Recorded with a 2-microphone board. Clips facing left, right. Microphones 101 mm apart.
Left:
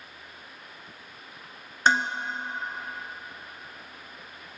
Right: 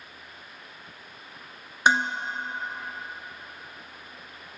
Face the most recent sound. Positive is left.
turn(degrees=-10)  # may be behind; listen again after turning